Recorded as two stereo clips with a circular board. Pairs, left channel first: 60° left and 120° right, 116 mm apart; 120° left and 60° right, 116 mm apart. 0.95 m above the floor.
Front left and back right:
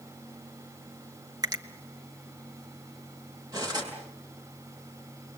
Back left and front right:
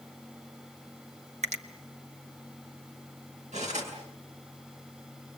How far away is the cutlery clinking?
About 7 m.